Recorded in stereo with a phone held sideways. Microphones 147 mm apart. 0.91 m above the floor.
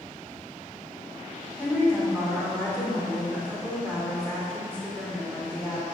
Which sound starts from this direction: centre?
A woman speaking, at 1.6 s.